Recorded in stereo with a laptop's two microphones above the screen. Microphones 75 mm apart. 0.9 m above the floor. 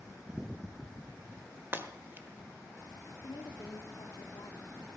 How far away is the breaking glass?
About 1.3 m.